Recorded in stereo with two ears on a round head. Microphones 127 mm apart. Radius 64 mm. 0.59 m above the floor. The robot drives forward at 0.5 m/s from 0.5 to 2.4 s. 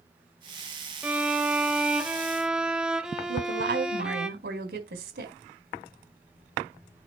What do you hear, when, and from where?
1.0 s a violin: 10° right (ahead or behind), 0.9 m; by 4.3 s 5° right (ahead or behind), 1.5 m
3.3 s a woman speaking: 80° right, 4 m